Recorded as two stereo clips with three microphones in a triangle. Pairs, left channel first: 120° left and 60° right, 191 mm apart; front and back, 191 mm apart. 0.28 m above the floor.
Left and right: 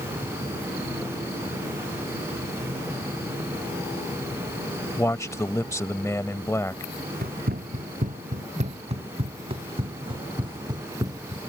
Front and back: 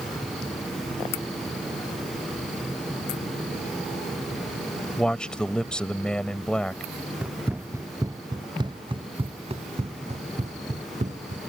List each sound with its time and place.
5.0 s a man speaking: 75° left
7.2 s running footsteps: 100° right; by 11.4 s 130° right